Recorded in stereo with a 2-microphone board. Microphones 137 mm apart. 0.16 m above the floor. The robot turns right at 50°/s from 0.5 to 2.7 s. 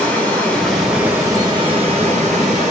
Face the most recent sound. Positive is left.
turn(degrees=-80)